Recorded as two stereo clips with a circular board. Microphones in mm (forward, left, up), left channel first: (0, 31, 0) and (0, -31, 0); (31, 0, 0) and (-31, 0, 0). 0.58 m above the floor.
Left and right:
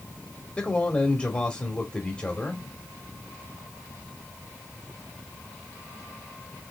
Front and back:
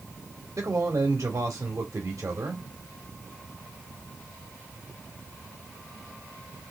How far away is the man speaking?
About 1.3 m.